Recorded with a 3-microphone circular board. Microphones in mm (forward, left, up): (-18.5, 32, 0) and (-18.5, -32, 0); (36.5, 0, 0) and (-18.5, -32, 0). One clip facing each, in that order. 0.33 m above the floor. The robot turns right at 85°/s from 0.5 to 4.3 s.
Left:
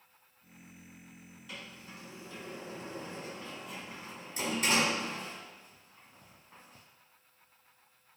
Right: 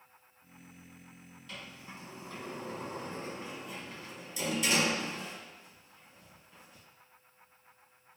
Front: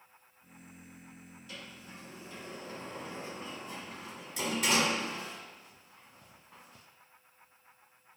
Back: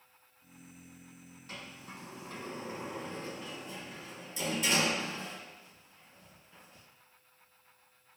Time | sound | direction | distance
1.5 | a sliding door | 170° left | 1.4 m